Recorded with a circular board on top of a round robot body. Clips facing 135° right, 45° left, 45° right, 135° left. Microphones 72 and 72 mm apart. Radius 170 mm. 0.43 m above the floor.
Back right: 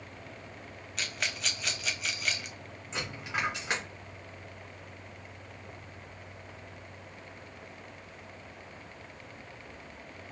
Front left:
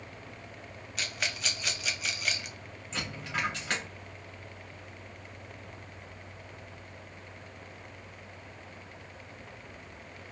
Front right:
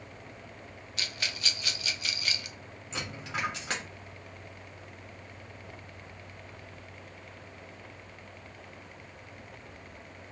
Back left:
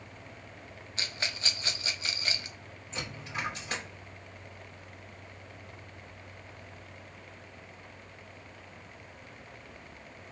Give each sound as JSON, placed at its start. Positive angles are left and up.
{"t": 1.0, "sound": "a rattle", "azimuth_deg": 130, "distance_m": 0.8}
{"t": 2.9, "sound": "a dropped coin", "azimuth_deg": -65, "distance_m": 1.7}